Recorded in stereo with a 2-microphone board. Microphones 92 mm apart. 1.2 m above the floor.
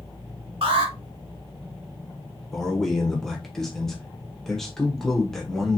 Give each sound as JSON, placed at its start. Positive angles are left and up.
{"t": 0.6, "sound": "an alarm", "side_deg": -75, "distance_m": 1.4}
{"t": 2.5, "sound": "a man speaking", "side_deg": 5, "distance_m": 1.0}